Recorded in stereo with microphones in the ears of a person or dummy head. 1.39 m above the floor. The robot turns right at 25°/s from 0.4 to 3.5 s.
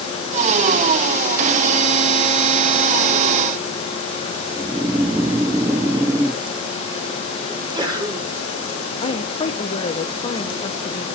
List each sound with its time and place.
4.6 s snoring: 25° right (ahead or behind), 0.5 m
7.5 s a sneeze: 20° right (ahead or behind), 5 m
9.0 s a woman speaking: 20° left (ahead or behind), 0.7 m